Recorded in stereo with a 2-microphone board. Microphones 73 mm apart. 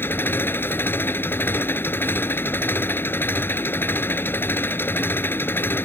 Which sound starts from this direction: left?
An engine running, at 0.0 s.